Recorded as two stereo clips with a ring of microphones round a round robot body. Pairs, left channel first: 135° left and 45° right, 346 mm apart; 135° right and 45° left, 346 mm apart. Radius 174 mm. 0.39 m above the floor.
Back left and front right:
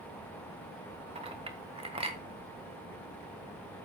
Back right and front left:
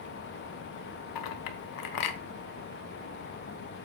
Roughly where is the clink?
Behind right.